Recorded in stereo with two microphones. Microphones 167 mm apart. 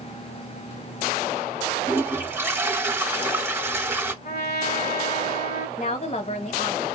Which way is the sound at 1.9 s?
15° right (ahead or behind).